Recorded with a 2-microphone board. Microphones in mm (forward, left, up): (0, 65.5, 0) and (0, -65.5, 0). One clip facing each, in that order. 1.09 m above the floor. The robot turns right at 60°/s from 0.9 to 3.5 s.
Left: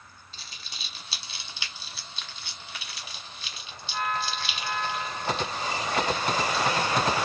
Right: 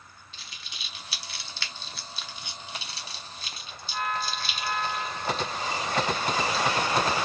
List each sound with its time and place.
0.3 s crumpling: 40° left (ahead or behind), 1.2 m; by 6.9 s 40° right (ahead or behind), 1.2 m